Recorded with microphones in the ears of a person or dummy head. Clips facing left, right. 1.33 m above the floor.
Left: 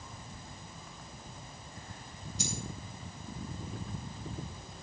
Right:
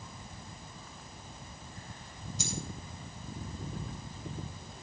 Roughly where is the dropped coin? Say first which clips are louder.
Even; right.